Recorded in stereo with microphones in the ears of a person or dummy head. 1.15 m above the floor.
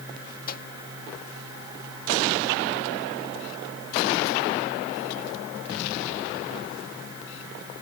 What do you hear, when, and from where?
0.5 s a microwave: 55° left (ahead or behind)